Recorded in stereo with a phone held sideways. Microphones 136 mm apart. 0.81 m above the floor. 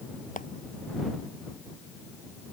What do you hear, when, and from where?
0.4 s a clap: 75° left (ahead or behind)